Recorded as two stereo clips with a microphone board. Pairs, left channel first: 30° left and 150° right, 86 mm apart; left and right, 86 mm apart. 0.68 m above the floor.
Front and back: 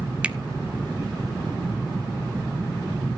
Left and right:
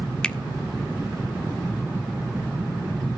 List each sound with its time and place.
0.2 s a finger snap: 155° left, 0.6 m